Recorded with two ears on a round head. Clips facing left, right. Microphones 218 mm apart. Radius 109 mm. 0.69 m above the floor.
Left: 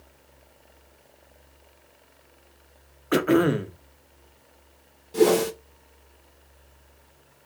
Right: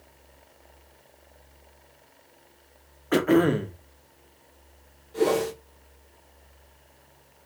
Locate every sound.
3.1 s throat clearing: 5° left (ahead or behind), 1.1 m
5.1 s a whoosh: 65° left (ahead or behind), 2 m